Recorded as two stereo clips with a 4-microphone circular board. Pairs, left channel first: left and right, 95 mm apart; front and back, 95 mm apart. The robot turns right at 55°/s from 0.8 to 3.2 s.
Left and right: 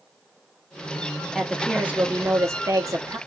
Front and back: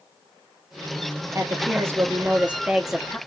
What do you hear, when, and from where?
1.4 s a woman speaking: straight behind, 0.9 m; by 3.2 s 80° right, 0.9 m